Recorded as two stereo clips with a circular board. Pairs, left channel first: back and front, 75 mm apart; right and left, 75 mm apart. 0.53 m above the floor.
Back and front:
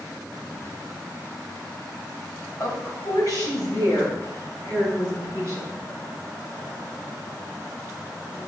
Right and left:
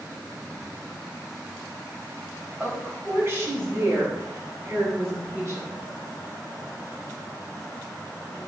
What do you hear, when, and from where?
2.6 s a woman speaking: 150° left, 2.5 m; by 5.8 s 135° left, 5 m